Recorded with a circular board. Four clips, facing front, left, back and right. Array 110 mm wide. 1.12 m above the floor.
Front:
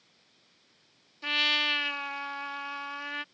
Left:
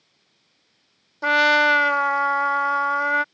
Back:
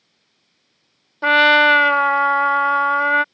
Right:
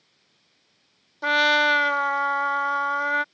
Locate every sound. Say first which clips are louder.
1.2 s a trumpet: left 3 dB, back 20 dB; 165° left